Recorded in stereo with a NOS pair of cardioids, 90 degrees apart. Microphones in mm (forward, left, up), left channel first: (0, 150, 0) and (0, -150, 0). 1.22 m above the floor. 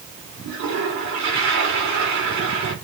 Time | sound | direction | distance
0.4 | a toilet flushing | 70° right | 3.5 m